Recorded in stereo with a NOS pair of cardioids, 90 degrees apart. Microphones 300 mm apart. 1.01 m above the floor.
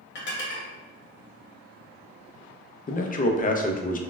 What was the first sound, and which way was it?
Dishes clattering, 40° left.